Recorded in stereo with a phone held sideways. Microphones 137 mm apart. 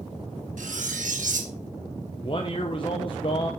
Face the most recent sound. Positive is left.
turn(degrees=40)  # may be behind; listen again after turning